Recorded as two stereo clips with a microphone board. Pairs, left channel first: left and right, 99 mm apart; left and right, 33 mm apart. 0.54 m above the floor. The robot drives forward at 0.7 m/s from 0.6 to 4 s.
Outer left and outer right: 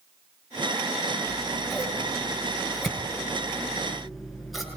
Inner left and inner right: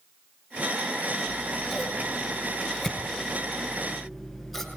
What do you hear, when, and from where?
1.3 s scissors: centre (ahead or behind), 8.5 m